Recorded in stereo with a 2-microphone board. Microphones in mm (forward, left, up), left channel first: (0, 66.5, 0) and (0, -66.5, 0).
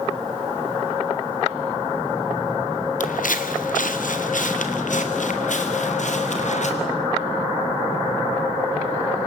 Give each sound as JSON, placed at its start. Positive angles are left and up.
{"t": 3.0, "sound": "footsteps", "side_deg": 75, "distance_m": 1.1}